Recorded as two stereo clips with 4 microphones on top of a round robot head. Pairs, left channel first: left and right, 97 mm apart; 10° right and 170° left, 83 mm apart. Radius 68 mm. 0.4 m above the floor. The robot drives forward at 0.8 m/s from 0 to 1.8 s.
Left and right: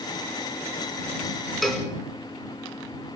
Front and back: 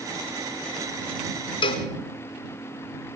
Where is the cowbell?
Straight ahead, 1.8 m.